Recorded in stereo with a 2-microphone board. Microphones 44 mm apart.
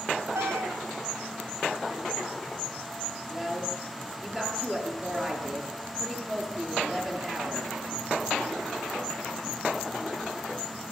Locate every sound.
0.3 s a cat meowing: 80° right, 1.6 m
3.3 s a woman speaking: 10° right (ahead or behind), 8 m